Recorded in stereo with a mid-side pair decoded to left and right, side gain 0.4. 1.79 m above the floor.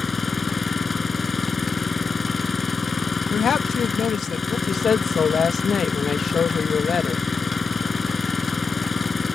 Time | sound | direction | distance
0.0 | an engine running | 35° left | ?
3.3 | a woman speaking | 60° left | ?
4.7 | a woman speaking | 55° left | ?